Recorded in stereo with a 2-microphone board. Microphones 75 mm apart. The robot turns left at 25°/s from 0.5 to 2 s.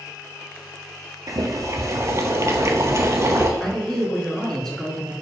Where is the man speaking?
10° left (ahead or behind), 1.1 m.